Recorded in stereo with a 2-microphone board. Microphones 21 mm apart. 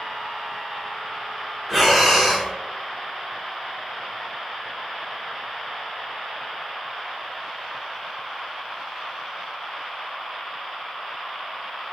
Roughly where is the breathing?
Centre.